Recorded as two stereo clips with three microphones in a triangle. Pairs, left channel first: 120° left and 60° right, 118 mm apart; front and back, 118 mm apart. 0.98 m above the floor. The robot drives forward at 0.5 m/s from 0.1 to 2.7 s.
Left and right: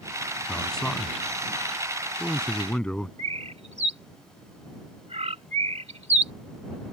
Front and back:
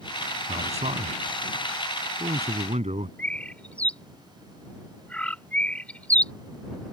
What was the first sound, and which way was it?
A man speaking, 155° right.